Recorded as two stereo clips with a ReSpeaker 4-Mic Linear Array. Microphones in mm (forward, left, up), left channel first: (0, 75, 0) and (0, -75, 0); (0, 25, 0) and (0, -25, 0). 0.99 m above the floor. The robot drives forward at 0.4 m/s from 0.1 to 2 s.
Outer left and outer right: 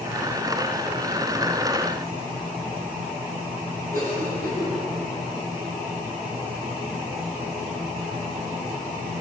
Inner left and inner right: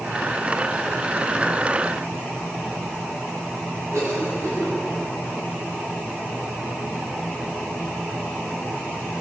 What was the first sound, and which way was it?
A cough, 85° right.